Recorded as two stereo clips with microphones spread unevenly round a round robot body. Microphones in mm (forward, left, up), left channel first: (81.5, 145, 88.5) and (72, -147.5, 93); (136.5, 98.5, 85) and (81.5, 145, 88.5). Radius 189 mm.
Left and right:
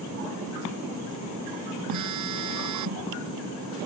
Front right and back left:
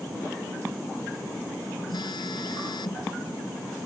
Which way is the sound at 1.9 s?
70° right.